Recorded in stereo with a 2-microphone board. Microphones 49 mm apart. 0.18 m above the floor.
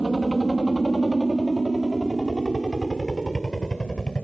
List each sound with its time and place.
0.0 s a helicopter: 5° right (ahead or behind); by 4.2 s 15° left (ahead or behind)